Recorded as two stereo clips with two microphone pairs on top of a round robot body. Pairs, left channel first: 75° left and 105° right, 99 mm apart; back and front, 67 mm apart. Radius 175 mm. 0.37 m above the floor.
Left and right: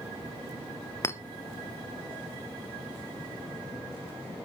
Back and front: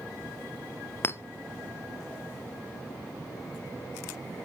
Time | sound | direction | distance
1.0 | a clink | 140° left | 0.9 m